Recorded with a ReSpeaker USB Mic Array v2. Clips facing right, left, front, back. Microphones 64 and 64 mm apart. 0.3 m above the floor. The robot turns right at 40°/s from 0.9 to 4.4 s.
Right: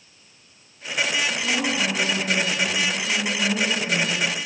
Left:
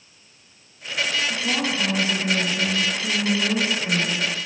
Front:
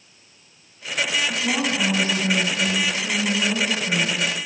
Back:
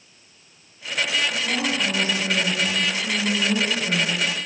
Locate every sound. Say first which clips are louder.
1.3 s a woman speaking: even, front 1 dB; straight ahead, 2.5 m; by 4.3 s 120° left, 2.5 m